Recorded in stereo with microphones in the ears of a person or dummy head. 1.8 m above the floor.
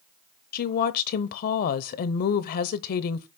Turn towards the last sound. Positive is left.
turn(degrees=55)  # may be behind; listen again after turning